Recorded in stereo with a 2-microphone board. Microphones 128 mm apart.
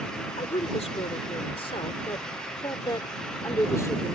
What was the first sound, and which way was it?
A woman speaking, 60° left (ahead or behind).